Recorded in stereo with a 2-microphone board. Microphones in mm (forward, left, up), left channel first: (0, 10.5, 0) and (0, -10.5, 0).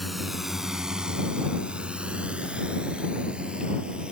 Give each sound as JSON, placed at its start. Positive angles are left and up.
{"t": 0.0, "sound": "a drone", "side_deg": 0}